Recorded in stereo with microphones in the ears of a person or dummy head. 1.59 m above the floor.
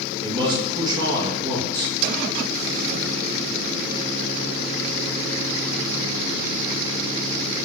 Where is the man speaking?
25° right (ahead or behind), 5.5 m.